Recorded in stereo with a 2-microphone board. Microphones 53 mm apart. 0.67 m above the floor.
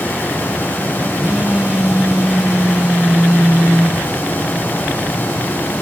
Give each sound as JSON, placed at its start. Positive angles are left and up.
{"t": 1.2, "sound": "a phone buzzing", "side_deg": -15, "distance_m": 2.5}